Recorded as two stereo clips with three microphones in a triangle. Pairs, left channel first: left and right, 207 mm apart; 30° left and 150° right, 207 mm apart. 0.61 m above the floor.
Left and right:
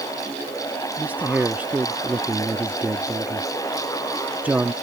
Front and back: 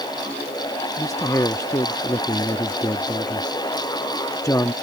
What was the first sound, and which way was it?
A man speaking, 20° right.